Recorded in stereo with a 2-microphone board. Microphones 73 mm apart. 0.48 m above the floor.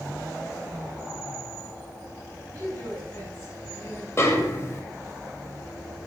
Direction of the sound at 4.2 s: 40° left (ahead or behind).